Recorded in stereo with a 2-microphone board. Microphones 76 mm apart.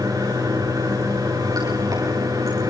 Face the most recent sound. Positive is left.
turn(degrees=-55)  # may be behind; listen again after turning